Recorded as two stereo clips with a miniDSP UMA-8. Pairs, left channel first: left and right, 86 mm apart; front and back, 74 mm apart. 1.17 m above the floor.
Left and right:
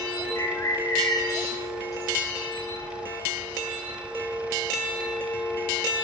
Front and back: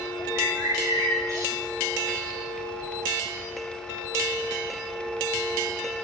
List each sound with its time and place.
0.3 s a bird: 140° left, 2.0 m